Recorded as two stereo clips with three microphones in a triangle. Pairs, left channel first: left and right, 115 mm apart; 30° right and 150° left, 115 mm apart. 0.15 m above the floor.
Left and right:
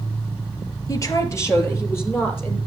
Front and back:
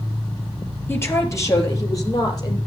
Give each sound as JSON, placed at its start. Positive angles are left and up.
{"t": 0.9, "sound": "a woman speaking", "azimuth_deg": 35, "distance_m": 3.5}